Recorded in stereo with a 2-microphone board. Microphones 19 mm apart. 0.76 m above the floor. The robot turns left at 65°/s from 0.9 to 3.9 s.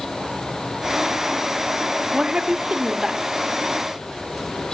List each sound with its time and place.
2.1 s a woman speaking: 65° right, 1.4 m; by 3.2 s 140° right, 1.4 m